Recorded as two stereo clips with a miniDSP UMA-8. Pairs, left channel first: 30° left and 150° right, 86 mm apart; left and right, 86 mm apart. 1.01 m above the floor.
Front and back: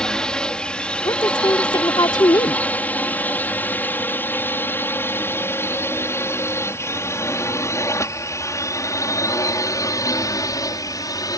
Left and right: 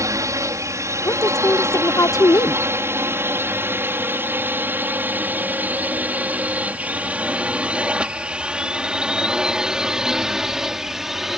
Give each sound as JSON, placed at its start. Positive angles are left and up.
{"t": 0.0, "sound": "a drone", "azimuth_deg": -50}
{"t": 1.1, "sound": "a woman speaking", "azimuth_deg": 50}